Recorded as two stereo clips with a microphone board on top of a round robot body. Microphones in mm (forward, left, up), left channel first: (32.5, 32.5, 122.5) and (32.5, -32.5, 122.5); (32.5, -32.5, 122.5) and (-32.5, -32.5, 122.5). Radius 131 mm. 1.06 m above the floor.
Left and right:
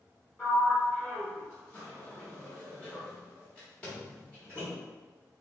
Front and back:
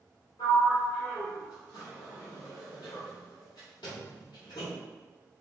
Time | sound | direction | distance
0.4 | a sliding door | 20° left | 0.9 m